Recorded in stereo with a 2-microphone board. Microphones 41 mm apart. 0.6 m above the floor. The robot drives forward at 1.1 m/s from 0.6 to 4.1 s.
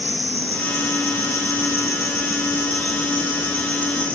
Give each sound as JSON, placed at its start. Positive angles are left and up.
{"t": 0.0, "sound": "an insect", "side_deg": 50, "distance_m": 2.5}